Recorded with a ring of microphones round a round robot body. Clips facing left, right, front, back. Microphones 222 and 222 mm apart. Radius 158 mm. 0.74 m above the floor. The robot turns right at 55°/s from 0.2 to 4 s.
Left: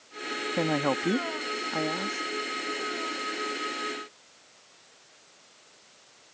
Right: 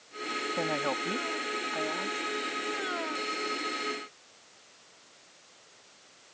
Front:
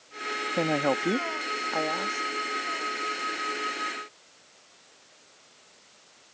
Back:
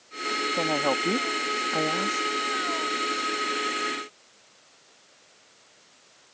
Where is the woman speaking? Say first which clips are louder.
Left 6 dB, front 2 dB; 60° left; by 2.3 s 155° left.